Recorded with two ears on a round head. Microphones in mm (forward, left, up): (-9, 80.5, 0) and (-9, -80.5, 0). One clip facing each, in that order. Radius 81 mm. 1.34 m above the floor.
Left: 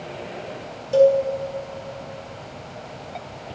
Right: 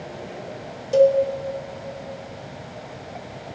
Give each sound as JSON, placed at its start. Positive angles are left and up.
{"t": 0.9, "sound": "a cowbell", "side_deg": -15, "distance_m": 0.8}